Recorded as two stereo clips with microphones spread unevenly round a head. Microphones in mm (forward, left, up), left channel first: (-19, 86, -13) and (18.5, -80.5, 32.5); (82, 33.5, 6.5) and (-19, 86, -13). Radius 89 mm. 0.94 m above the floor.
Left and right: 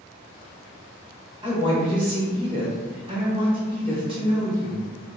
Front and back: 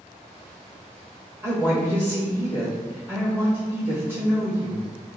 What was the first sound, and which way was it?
A woman speaking, 145° right.